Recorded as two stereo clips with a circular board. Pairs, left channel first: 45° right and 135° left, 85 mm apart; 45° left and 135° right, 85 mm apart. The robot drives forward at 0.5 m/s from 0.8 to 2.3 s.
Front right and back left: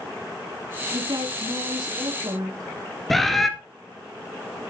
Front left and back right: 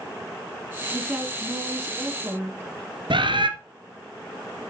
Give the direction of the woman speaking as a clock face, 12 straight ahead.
7 o'clock.